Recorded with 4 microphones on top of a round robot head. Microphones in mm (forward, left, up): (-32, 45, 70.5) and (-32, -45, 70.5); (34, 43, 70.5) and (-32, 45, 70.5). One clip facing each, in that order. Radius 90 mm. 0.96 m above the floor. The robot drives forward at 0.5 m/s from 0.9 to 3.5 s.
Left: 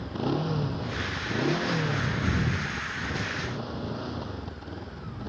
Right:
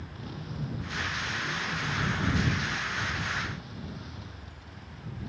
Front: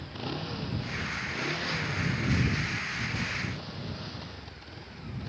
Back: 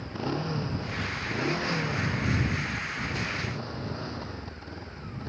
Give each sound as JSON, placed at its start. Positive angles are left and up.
{"t": 0.0, "sound": "a motorcycle", "azimuth_deg": 110}